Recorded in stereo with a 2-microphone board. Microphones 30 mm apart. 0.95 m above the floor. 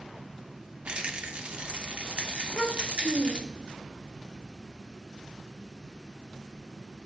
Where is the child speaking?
30° left (ahead or behind), 1.6 m.